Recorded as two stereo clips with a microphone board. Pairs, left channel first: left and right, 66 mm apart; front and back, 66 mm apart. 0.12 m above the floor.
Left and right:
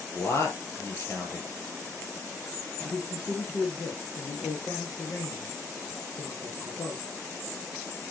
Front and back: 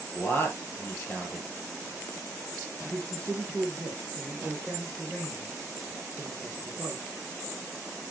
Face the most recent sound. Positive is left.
turn(degrees=70)